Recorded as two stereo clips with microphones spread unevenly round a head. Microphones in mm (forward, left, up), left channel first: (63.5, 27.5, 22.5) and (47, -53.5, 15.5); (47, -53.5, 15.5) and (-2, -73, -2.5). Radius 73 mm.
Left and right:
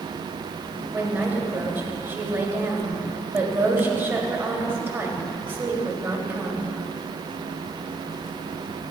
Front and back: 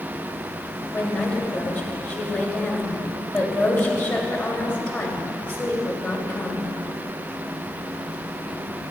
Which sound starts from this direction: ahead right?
A woman speaking, at 0.9 s.